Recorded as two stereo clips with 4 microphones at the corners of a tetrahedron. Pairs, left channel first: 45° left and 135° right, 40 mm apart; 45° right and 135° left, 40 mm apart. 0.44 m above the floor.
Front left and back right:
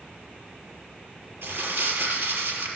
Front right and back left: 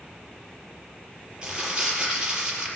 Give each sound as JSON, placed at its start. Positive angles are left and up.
{"t": 1.4, "sound": "crumpling", "azimuth_deg": -155, "distance_m": 6.0}